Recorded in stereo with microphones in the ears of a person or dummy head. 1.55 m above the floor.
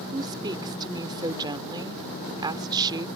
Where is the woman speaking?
20° right (ahead or behind).